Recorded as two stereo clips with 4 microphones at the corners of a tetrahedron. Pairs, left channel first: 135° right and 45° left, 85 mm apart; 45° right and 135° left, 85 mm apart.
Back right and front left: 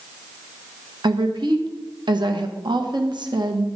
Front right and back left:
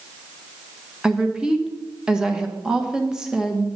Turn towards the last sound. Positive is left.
turn(degrees=55)